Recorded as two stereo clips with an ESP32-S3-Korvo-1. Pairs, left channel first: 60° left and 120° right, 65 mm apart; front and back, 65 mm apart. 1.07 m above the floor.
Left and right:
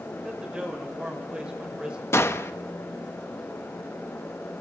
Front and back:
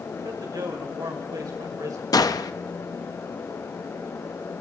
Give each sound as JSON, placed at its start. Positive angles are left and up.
{"t": 0.2, "sound": "a man speaking", "azimuth_deg": 165, "distance_m": 5.5}
{"t": 2.1, "sound": "a gunshot", "azimuth_deg": 10, "distance_m": 1.0}